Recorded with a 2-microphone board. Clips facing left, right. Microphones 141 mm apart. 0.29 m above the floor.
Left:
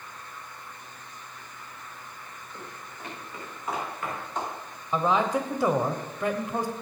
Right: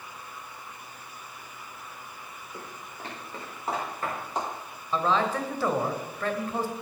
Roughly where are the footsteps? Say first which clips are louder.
Right 1 dB; right.